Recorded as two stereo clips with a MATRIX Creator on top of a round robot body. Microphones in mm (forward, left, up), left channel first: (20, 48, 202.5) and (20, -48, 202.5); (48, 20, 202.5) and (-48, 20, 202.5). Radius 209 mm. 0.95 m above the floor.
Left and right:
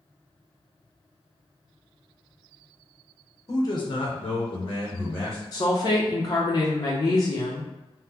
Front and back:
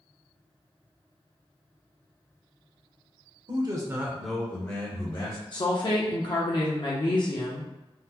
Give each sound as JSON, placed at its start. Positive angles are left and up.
{"t": 3.5, "sound": "a man speaking", "azimuth_deg": 140, "distance_m": 0.9}
{"t": 5.5, "sound": "a woman speaking", "azimuth_deg": 40, "distance_m": 0.7}